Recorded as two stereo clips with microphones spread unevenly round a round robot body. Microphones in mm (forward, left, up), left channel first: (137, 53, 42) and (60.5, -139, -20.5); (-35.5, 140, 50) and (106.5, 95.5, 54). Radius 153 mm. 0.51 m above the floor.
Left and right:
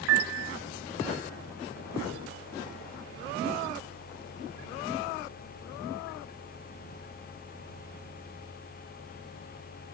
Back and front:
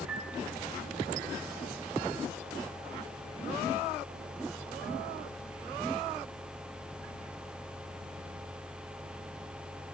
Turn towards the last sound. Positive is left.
turn(degrees=-100)